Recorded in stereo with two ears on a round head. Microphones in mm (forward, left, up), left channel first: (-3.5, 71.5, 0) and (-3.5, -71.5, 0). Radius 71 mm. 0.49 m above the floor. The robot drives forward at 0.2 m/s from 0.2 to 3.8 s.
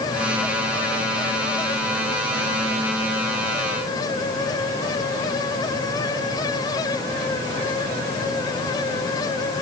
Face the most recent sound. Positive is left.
No sound to turn to.